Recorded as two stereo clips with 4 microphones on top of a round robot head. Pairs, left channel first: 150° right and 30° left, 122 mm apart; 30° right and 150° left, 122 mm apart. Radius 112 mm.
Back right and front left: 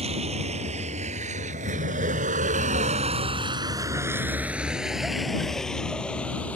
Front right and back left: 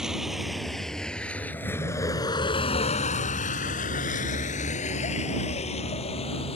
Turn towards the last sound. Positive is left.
turn(degrees=-70)